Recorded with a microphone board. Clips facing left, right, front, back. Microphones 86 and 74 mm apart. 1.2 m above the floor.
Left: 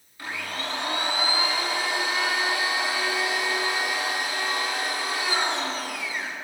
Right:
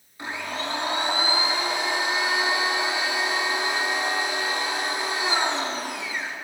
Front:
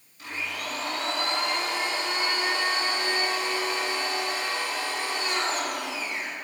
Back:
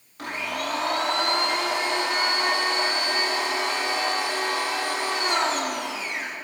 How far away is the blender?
About 2 m.